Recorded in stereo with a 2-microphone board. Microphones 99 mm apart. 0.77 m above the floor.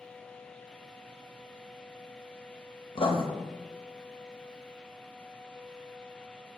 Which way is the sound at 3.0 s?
65° left (ahead or behind).